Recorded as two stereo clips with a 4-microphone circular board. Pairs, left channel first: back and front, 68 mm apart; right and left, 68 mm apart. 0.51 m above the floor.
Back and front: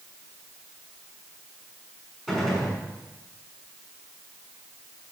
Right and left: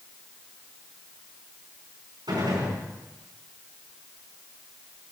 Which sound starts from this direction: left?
A gunshot, at 2.3 s.